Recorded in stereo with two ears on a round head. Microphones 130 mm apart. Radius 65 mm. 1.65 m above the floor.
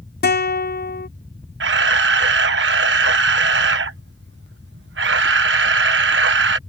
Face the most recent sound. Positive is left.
turn(degrees=-85)